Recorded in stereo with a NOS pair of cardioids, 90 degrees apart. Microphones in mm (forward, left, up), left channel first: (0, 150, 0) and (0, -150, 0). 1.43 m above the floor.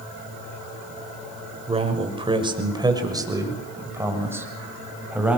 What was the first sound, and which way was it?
A man speaking, 20° right.